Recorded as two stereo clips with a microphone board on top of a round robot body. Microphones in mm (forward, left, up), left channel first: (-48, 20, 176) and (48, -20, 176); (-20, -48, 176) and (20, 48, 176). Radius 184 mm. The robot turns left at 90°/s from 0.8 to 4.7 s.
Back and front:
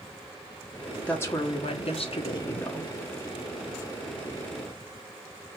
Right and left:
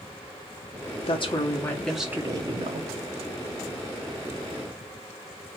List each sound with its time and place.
1.1 s a woman speaking: 125° right, 1.2 m; by 2.9 s 70° left, 1.2 m